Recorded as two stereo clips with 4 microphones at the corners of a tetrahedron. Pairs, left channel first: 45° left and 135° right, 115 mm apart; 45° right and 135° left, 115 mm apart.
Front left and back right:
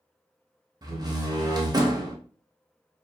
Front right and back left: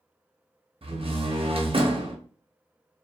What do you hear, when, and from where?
0.8 s a door slam: 170° left, 0.7 m